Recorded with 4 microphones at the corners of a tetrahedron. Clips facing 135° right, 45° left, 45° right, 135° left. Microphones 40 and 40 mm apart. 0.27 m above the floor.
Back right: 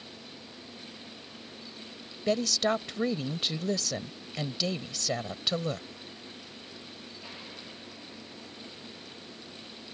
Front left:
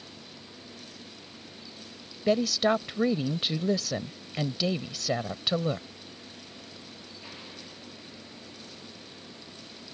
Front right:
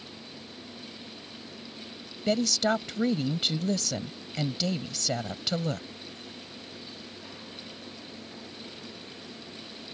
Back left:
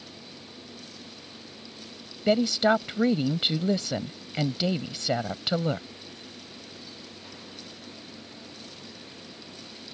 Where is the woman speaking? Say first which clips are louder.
Front left 3 dB, back left 4 dB; 110° left.